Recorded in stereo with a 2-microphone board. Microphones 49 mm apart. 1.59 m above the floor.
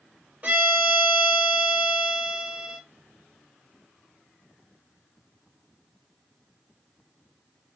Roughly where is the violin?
Right.